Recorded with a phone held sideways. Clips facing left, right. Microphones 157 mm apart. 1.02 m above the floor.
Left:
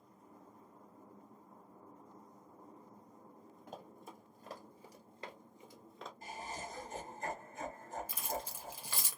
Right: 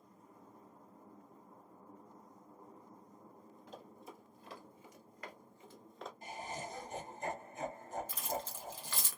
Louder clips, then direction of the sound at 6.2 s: Right 1 dB; 20° right (ahead or behind).